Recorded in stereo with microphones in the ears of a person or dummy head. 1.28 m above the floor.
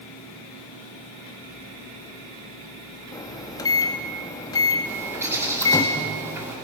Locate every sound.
3.1 s a microwave: 25° left (ahead or behind), 1.6 m
4.8 s a bird: 15° right (ahead or behind), 3 m